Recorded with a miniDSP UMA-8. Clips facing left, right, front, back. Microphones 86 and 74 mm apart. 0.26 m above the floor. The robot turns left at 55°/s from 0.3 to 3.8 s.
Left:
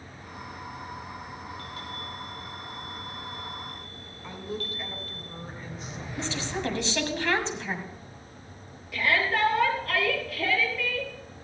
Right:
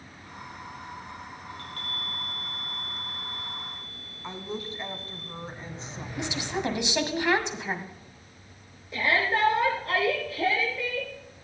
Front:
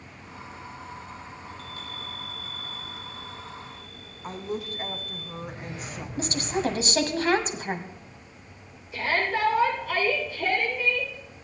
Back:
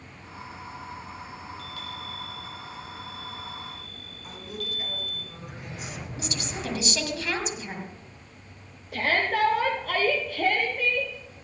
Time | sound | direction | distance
1.5 | a chime | 40° right | 5.5 m
4.2 | a woman speaking | 35° right | 1.9 m
6.2 | a woman speaking | 20° right | 1.8 m
8.9 | a shout | 155° right | 6 m